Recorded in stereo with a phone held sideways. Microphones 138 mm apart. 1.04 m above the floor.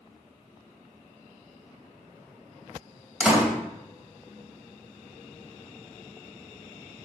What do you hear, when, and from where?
3.2 s a door slam: 10° right (ahead or behind), 3 m